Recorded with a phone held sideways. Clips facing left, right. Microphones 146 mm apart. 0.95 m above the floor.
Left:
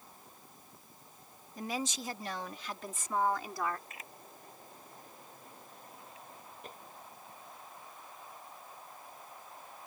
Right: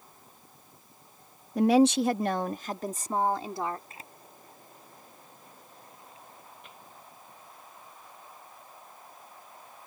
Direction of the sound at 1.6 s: 70° right (ahead or behind).